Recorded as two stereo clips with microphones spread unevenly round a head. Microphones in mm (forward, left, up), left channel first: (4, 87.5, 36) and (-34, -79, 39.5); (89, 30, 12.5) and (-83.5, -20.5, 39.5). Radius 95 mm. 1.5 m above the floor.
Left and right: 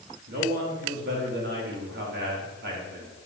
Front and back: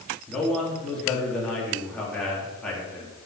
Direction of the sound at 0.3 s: 70° right.